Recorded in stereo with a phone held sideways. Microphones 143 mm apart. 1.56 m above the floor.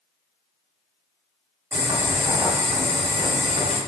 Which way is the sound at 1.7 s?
15° right (ahead or behind).